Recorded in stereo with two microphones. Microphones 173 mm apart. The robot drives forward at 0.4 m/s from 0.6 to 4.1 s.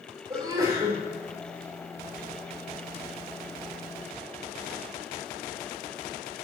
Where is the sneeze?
20° right (ahead or behind), 4 m.